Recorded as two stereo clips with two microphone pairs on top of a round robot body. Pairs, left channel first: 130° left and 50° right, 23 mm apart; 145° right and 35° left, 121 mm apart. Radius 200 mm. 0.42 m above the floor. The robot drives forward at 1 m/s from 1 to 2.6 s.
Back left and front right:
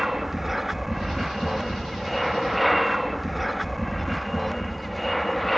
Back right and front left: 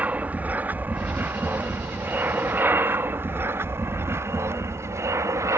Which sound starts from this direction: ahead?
An aircraft, at 0.0 s.